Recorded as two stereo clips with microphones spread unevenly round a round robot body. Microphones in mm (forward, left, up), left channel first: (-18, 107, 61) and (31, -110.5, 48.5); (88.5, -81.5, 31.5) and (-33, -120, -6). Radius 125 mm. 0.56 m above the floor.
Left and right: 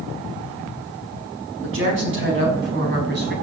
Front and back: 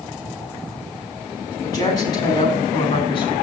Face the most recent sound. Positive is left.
turn(degrees=-35)